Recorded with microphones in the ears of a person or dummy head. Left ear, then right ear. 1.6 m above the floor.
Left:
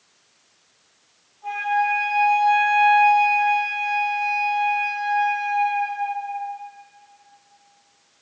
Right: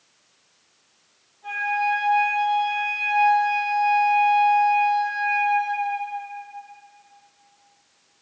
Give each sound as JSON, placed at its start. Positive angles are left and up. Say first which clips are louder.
{"t": 1.4, "sound": "a flute", "louder": "left 2 dB", "side_deg": 15, "distance_m": 2.0}